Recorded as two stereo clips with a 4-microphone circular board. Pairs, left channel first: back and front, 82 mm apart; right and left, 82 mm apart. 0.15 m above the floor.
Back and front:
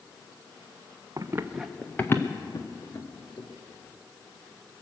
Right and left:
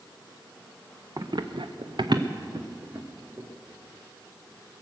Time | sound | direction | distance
1.2 | running footsteps | 45° left | 1.1 m